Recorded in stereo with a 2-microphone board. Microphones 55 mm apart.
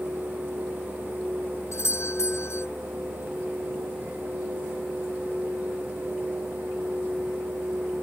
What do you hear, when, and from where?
1.7 s a doorbell: 55° left (ahead or behind)